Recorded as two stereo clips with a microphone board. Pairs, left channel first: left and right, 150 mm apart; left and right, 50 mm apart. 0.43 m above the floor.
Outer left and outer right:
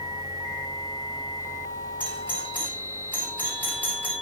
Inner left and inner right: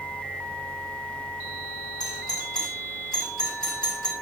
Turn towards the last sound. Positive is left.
turn(degrees=10)  # may be behind; listen again after turning